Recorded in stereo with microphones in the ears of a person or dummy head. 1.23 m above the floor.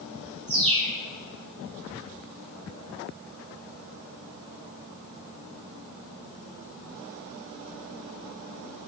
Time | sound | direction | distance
0.5 | a bird | 30° right (ahead or behind) | 5.5 m